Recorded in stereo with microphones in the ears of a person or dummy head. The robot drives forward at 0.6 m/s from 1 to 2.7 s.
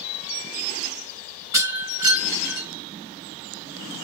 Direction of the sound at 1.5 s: 15° right (ahead or behind).